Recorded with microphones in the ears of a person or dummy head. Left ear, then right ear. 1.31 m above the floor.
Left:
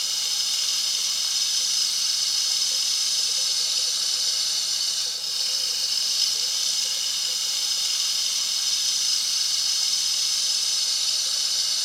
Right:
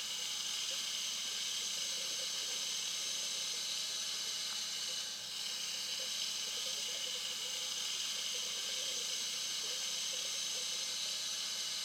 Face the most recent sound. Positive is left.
turn(degrees=45)  # may be behind; listen again after turning